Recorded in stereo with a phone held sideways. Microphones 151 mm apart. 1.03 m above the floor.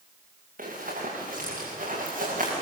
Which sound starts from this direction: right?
Running footsteps, at 0.6 s.